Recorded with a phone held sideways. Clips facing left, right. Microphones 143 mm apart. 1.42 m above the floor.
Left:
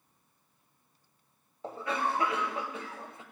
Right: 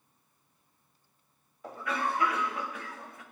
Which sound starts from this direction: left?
A cough, at 1.6 s.